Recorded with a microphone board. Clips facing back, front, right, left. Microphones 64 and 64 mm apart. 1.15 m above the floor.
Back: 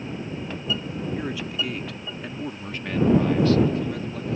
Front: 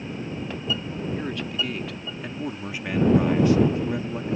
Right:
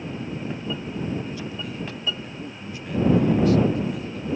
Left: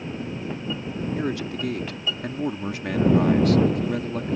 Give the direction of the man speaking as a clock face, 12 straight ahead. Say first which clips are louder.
Even, left 5 dB; 9 o'clock.